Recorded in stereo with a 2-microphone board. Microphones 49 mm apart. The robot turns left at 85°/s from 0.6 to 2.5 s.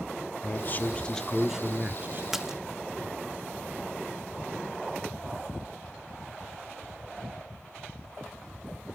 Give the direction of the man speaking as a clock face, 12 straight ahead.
10 o'clock.